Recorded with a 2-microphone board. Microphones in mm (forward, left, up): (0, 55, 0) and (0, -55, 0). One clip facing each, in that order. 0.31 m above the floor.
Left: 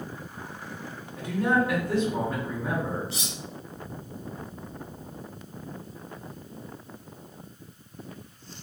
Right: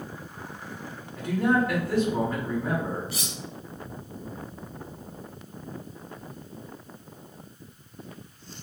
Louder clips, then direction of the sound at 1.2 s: Right 1 dB; centre (ahead or behind).